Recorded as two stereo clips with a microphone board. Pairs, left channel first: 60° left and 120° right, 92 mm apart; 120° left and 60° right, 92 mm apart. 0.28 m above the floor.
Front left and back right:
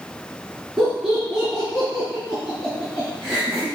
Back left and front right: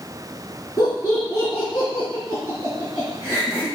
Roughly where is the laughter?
Behind left.